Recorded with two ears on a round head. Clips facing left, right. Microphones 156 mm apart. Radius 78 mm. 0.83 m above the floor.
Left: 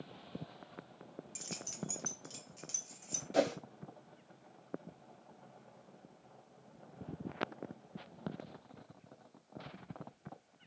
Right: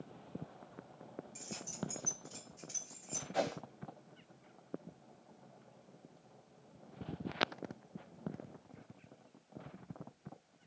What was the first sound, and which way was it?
Keys jangling, 65° left (ahead or behind).